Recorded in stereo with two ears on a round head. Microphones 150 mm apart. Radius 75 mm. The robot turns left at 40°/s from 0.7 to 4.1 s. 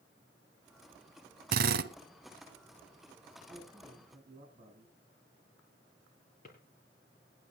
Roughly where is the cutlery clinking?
I don't hear cutlery clinking.